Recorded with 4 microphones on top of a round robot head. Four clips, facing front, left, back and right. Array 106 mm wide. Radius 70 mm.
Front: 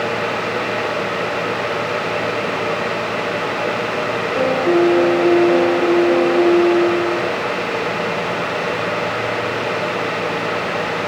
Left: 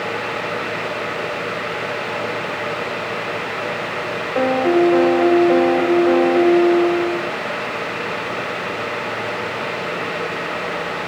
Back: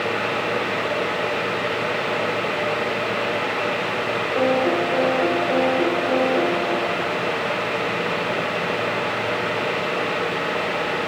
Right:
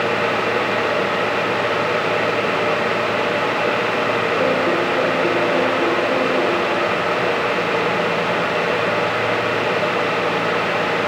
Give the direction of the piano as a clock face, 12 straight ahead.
9 o'clock.